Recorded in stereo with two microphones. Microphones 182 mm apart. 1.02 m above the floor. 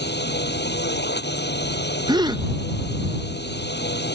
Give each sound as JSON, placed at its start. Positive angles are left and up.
{"t": 0.0, "sound": "a drone", "side_deg": 70}
{"t": 2.1, "sound": "a gasp", "side_deg": -25}